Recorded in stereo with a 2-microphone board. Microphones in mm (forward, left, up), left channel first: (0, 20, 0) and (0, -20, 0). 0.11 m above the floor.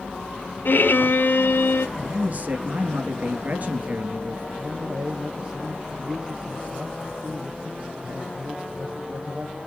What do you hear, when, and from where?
0.7 s a violin: 65° left (ahead or behind), 0.6 m
2.0 s a man speaking: 45° right (ahead or behind), 1.7 m
4.6 s a man speaking: 20° right (ahead or behind), 4 m